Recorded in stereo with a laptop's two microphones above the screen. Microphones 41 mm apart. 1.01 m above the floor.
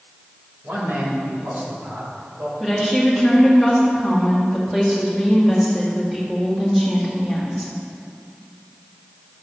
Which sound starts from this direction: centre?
A woman speaking, at 2.6 s.